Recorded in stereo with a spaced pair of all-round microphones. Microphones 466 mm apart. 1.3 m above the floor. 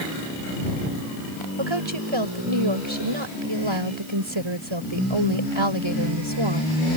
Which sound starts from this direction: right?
A woman speaking, at 1.6 s.